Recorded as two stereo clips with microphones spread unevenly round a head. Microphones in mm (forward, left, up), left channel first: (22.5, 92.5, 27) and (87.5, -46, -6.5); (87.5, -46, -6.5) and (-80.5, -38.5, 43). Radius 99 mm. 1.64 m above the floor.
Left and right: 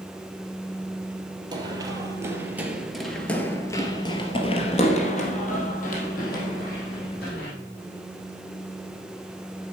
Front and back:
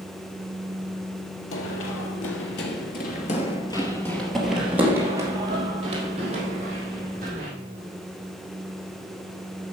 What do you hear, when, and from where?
1.5 s running footsteps: straight ahead, 2.5 m; by 7.5 s 135° left, 4.5 m